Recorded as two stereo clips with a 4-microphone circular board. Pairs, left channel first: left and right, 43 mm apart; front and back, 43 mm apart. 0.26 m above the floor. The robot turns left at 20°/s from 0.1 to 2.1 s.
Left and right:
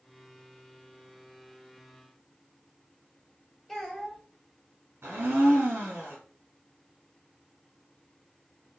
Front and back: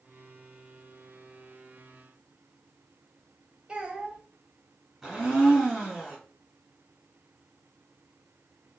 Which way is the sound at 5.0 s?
100° right.